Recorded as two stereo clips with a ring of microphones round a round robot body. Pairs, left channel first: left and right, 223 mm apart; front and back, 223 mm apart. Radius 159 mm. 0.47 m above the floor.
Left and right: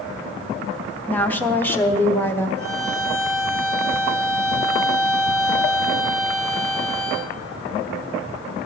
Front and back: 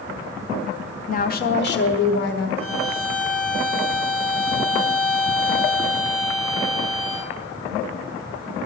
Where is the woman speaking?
15° left, 1.0 m; by 2.5 s 10° left, 1.8 m.